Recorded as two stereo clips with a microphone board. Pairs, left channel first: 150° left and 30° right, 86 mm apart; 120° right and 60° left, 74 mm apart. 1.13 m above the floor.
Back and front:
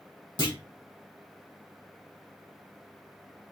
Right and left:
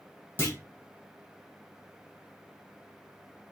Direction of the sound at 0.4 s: Straight behind.